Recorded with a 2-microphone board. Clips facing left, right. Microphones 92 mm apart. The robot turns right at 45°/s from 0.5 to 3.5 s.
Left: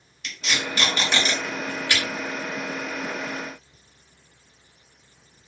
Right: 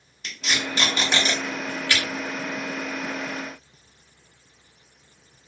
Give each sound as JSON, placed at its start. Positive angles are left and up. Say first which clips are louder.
{"t": 0.2, "sound": "tape being pulled", "louder": "even", "side_deg": -35, "distance_m": 1.0}